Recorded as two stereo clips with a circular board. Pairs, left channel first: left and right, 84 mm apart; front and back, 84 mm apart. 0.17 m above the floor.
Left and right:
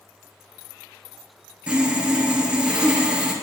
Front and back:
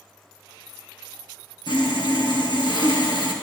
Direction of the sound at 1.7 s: 15° right.